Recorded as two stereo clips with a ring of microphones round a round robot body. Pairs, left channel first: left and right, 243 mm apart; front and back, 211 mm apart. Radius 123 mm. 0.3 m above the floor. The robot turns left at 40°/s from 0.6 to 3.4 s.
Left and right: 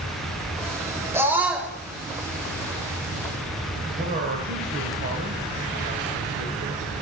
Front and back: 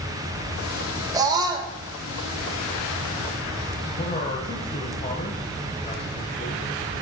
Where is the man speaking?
55° right, 1.3 m.